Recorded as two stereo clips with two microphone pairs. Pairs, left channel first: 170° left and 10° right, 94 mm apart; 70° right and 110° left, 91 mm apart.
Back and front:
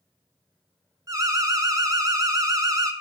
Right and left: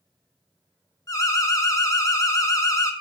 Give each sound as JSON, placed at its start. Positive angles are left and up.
{"t": 1.1, "sound": "an alarm", "azimuth_deg": -40, "distance_m": 1.0}